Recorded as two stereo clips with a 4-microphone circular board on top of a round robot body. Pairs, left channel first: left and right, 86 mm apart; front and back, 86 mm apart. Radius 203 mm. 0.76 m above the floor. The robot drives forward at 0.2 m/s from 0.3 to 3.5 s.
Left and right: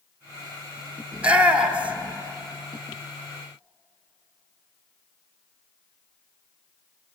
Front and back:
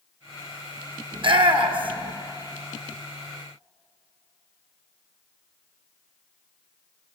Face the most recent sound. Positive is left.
turn(degrees=-170)